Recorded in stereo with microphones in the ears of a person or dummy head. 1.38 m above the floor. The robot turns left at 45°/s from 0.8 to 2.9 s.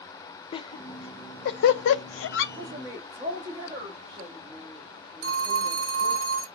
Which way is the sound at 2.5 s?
45° right (ahead or behind).